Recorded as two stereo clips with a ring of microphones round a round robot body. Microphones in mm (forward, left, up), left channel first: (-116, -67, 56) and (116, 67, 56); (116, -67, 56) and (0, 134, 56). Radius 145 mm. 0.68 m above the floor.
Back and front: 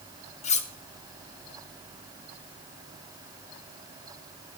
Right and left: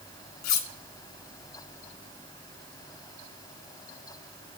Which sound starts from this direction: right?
Cutlery clinking, at 0.4 s.